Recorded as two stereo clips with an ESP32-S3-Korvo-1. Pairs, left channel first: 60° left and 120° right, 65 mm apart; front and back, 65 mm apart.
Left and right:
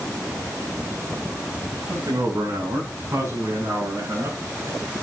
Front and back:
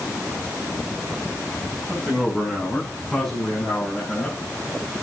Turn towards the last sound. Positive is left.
turn(degrees=-75)